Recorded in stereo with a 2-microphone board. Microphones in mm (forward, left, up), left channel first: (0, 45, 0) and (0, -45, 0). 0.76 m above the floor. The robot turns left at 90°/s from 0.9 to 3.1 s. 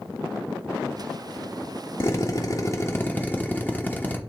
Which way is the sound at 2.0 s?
135° left.